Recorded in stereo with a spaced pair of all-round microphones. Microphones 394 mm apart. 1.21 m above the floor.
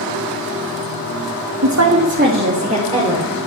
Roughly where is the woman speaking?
Right.